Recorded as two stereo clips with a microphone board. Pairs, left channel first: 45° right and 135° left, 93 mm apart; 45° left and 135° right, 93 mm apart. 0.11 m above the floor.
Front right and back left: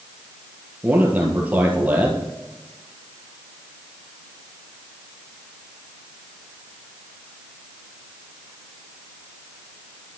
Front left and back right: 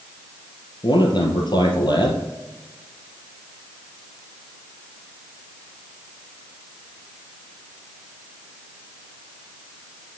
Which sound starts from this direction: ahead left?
A man speaking, at 0.8 s.